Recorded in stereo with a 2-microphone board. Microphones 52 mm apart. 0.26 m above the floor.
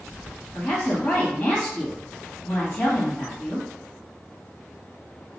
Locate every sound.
0.5 s a woman speaking: 35° left (ahead or behind), 1.6 m